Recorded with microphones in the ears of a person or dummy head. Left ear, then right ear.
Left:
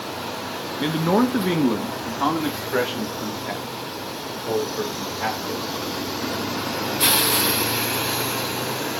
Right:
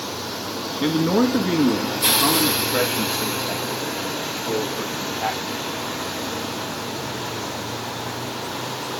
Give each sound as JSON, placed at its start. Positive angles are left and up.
{"t": 0.8, "sound": "a man speaking", "side_deg": 10, "distance_m": 0.9}